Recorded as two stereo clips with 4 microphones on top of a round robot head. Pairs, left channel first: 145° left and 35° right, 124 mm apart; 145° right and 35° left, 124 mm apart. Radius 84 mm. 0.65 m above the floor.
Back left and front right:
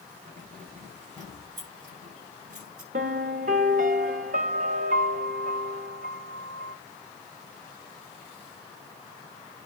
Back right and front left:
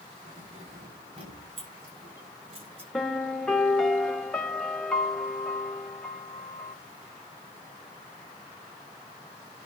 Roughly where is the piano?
Ahead right.